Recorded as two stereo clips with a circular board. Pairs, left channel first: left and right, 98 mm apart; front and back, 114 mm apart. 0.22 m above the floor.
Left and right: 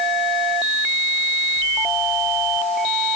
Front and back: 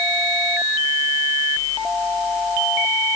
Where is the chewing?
I don't hear chewing.